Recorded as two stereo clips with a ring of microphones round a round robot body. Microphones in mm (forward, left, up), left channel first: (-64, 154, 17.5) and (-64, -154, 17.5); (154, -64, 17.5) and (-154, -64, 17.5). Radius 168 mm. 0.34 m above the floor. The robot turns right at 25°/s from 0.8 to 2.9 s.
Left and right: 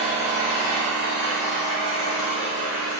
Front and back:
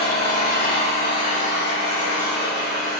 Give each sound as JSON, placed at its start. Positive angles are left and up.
{"t": 0.0, "sound": "an engine running", "azimuth_deg": 30, "distance_m": 1.4}